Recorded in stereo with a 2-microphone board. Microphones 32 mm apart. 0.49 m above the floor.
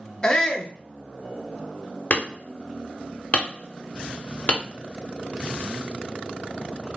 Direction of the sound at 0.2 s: 25° left (ahead or behind).